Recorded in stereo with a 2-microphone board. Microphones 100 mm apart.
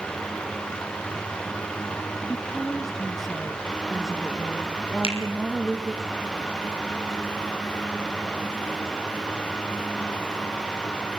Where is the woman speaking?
Centre (ahead or behind), 5.5 m.